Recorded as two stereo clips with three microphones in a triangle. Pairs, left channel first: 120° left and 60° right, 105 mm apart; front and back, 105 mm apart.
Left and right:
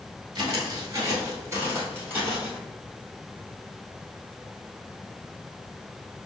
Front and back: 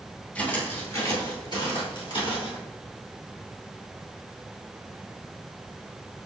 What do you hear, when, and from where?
0.3 s footsteps: 70° right, 1.6 m; by 2.6 s 15° left, 2.5 m